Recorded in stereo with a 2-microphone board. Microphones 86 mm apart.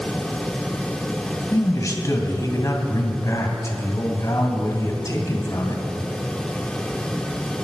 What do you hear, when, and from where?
1.5 s a man speaking: 40° left (ahead or behind), 2.5 m